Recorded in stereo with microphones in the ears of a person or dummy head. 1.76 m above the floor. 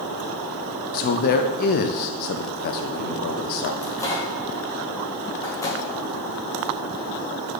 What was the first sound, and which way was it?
A man speaking, 45° left (ahead or behind).